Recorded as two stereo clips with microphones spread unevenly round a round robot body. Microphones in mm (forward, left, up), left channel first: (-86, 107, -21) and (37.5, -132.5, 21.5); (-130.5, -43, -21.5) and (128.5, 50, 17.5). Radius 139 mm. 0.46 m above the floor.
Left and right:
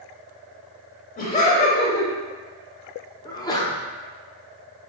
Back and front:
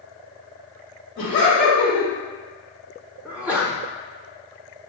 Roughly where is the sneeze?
Behind left.